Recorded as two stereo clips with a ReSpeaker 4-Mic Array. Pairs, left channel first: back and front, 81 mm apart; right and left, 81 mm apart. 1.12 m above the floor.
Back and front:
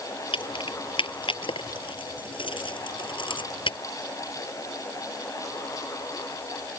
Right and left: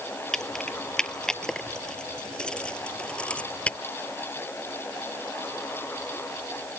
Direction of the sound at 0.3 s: 175° right.